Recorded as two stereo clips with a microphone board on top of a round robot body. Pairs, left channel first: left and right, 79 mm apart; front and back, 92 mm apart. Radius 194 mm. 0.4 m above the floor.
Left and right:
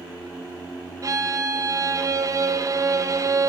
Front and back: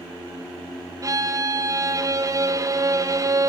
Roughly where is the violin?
Behind right.